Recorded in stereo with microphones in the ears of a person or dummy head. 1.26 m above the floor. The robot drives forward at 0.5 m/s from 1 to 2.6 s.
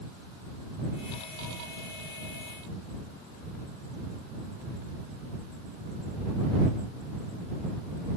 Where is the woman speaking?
No woman speaking in this recording.